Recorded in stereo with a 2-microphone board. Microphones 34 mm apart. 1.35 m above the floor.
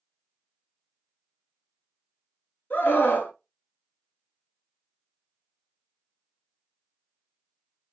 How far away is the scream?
About 1.5 m.